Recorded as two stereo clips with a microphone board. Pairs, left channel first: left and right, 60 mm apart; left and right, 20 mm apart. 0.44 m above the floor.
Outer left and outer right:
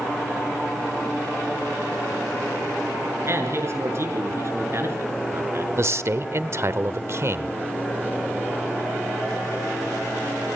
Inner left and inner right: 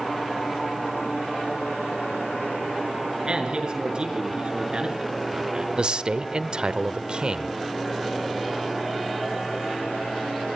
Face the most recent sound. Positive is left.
turn(degrees=-50)  # may be behind; listen again after turning